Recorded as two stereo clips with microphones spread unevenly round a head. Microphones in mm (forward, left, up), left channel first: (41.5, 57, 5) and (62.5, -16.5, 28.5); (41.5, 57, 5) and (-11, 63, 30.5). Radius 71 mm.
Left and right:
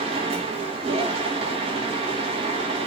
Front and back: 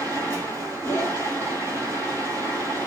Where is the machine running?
80° right, 2.5 m.